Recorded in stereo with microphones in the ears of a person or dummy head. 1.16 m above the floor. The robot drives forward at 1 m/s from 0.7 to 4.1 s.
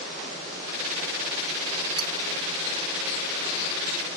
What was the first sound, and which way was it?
Cutlery clinking, 30° right (ahead or behind).